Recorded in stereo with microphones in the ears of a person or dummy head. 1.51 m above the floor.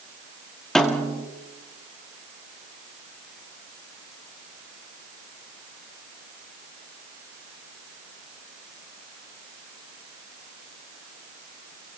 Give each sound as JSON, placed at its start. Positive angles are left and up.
{"t": 0.8, "sound": "a snare drum", "side_deg": 5, "distance_m": 2.0}